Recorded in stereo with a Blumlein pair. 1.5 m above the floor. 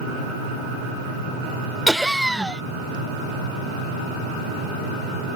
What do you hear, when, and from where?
1.9 s laughter: straight ahead